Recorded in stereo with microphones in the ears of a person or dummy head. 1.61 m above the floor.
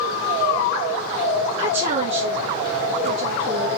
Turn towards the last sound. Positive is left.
turn(degrees=-55)  # may be behind; listen again after turning